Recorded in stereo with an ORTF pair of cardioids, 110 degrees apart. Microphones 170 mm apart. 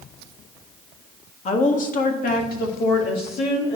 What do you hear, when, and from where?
1.4 s a woman speaking: 40° left, 1.6 m; by 3.8 s 65° left, 2.5 m